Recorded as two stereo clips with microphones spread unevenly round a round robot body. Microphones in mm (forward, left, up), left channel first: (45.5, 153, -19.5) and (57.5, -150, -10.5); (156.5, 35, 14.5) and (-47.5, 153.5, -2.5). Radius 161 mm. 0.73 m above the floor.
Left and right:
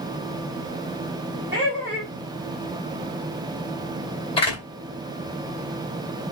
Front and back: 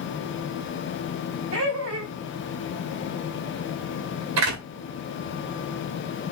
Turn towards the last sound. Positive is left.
turn(degrees=165)